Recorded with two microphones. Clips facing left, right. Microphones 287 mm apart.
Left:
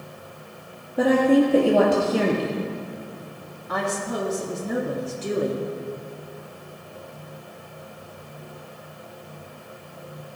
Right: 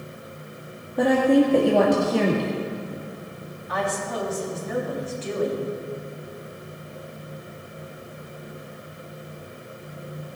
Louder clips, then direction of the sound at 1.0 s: Even; 5° left (ahead or behind).